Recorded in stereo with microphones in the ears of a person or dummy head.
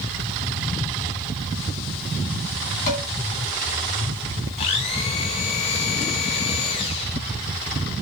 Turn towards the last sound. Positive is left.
turn(degrees=30)  # may be behind; listen again after turning